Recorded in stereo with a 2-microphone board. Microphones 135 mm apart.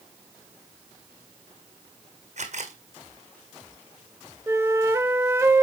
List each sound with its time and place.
2.4 s a camera shutter: 60° right (ahead or behind), 1.6 m
4.5 s a flute: 15° right (ahead or behind), 0.7 m